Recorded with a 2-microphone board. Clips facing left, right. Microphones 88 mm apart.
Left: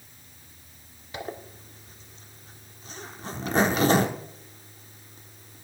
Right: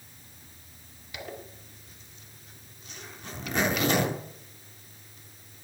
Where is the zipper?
35° left (ahead or behind), 1.3 m.